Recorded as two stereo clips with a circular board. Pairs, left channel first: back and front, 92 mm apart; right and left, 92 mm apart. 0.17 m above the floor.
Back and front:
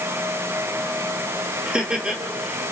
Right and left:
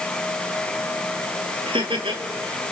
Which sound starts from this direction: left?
Laughter, at 1.7 s.